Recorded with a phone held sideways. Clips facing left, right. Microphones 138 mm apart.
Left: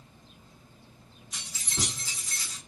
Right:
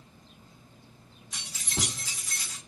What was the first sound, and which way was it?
Keys jangling, 85° right.